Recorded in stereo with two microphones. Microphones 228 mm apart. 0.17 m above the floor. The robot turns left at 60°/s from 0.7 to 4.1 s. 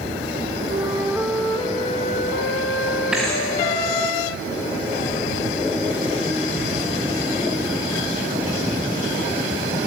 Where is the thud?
5° right (ahead or behind), 6.5 m; by 3.4 s 15° left (ahead or behind), 6.5 m.